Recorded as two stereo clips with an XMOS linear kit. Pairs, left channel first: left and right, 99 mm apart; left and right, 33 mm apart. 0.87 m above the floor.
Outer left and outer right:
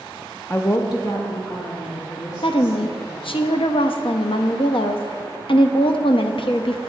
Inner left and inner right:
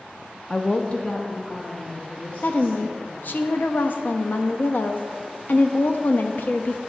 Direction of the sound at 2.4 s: 65° left (ahead or behind).